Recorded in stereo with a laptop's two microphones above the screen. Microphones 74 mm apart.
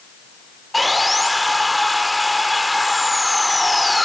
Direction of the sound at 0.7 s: Centre (ahead or behind).